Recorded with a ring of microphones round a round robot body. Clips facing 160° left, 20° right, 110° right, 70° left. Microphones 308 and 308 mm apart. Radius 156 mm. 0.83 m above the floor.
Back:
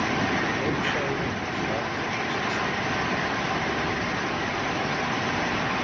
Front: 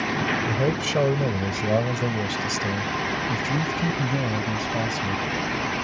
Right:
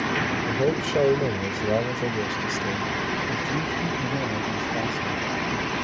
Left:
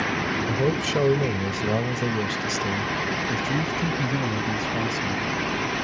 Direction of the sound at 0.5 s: 5° right.